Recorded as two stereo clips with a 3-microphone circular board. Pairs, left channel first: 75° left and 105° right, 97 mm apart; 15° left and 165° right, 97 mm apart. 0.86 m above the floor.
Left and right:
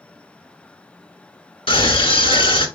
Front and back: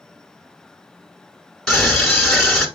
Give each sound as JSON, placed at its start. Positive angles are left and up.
{"t": 1.7, "sound": "a scream", "azimuth_deg": 105, "distance_m": 1.5}